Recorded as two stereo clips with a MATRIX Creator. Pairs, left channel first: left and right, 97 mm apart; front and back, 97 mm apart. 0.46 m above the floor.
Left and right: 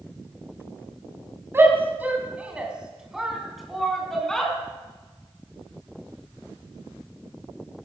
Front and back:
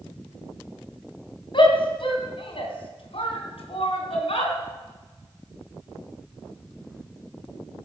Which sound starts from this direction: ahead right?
A shout, at 1.5 s.